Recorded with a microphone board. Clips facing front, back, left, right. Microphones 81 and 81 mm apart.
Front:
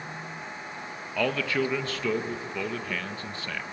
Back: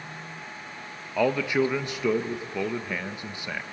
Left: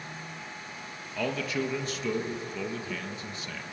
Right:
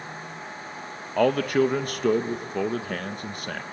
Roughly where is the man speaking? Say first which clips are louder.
Back 4 dB, right 10 dB; right.